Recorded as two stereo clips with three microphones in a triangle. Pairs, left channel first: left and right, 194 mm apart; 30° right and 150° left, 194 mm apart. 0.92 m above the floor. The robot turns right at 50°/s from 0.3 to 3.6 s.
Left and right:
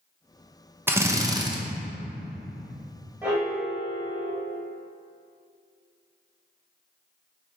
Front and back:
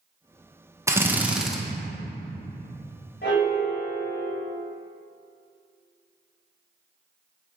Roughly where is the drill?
Behind right.